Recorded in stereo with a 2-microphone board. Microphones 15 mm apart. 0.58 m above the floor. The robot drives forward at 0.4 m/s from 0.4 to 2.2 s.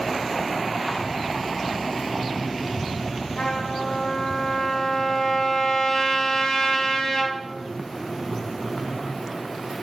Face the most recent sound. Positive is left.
turn(degrees=60)  # may be behind; listen again after turning